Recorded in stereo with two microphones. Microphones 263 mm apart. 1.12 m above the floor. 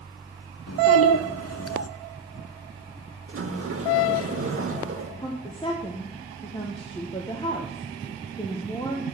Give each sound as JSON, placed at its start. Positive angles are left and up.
{"t": 0.7, "sound": "a child speaking", "side_deg": 65, "distance_m": 0.5}
{"t": 3.3, "sound": "a sliding door", "side_deg": -55, "distance_m": 1.1}
{"t": 5.2, "sound": "a woman speaking", "side_deg": 20, "distance_m": 0.9}